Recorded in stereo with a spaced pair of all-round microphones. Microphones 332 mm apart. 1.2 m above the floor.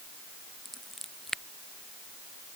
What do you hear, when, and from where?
0.7 s scissors: centre (ahead or behind)